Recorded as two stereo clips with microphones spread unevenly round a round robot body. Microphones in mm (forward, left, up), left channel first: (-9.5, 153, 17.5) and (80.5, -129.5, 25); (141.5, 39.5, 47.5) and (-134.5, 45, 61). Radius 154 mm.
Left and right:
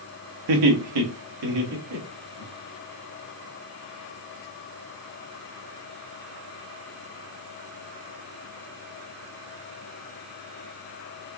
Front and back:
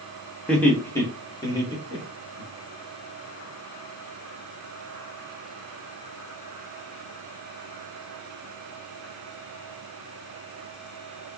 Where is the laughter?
85° right, 0.9 m; by 2.5 s 75° right, 2 m.